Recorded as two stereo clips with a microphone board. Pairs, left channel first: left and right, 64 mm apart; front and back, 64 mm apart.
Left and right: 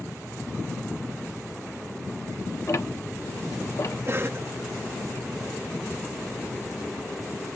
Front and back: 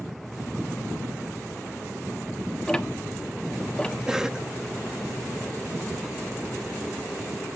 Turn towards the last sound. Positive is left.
turn(degrees=-105)